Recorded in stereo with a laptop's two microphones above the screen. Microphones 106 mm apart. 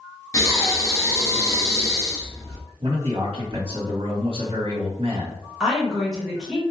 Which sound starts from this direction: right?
A man speaking, at 2.8 s.